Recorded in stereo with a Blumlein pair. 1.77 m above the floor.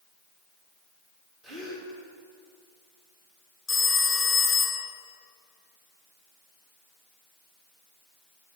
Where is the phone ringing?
10° left, 2.5 m.